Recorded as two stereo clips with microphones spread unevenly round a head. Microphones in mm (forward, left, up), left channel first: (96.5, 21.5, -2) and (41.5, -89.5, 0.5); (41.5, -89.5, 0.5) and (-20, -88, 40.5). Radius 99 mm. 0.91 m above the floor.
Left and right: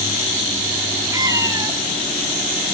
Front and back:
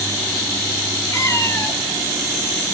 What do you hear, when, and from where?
1.1 s a cat meowing: 55° right, 2.5 m